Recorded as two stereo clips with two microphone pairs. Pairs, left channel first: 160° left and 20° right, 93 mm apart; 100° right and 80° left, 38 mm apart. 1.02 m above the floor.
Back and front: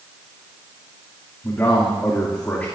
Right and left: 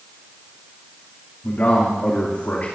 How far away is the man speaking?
About 2 m.